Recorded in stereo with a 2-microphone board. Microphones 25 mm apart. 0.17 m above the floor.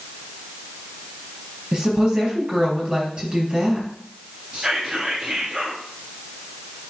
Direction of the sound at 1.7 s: 35° right (ahead or behind).